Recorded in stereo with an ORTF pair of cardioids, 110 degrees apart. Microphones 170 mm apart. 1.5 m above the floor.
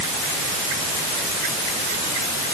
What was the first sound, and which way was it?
Only background noise.